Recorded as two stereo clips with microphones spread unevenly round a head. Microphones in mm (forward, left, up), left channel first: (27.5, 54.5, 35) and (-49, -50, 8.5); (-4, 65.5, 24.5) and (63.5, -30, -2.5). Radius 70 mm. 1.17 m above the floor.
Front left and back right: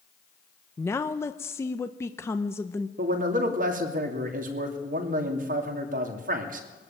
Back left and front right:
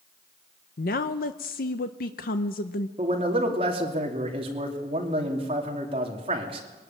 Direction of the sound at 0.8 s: 130° left.